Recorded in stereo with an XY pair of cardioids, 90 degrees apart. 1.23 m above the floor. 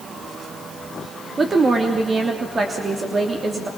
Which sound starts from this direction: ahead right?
A woman speaking, at 1.4 s.